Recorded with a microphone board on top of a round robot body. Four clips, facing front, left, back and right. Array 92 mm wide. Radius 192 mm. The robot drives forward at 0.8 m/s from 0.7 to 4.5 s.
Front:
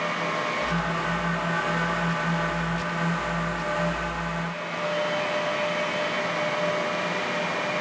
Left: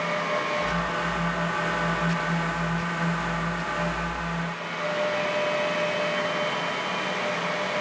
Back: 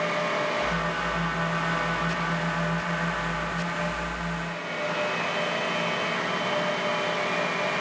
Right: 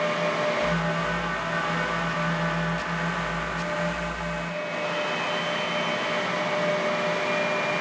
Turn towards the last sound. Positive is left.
No sound to turn to.